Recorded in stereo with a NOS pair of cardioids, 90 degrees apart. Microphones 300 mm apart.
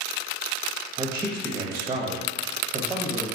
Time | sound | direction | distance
1.0 | a man speaking | 10° right | 0.6 m